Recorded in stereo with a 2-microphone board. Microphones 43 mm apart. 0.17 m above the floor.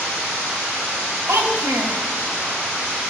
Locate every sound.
1.3 s a child speaking: 70° right (ahead or behind), 2.5 m